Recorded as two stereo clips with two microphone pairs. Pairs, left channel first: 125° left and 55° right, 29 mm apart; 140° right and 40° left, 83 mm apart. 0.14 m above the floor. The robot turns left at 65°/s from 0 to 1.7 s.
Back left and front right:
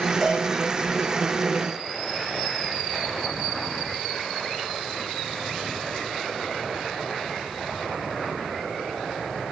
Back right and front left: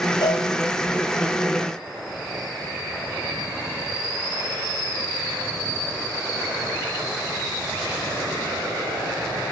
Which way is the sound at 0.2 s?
155° right.